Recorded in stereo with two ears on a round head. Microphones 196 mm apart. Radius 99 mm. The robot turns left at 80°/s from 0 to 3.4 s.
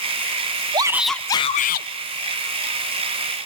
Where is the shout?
155° right, 0.9 m; by 1.9 s 115° left, 0.9 m.